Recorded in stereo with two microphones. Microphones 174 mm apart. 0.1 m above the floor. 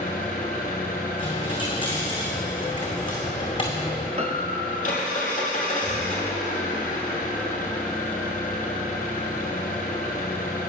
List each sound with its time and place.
0.0 s an engine running: 45° left (ahead or behind), 1.9 m
1.2 s a dropped coin: 25° left (ahead or behind), 2.0 m
4.2 s a piano: 40° right (ahead or behind), 0.5 m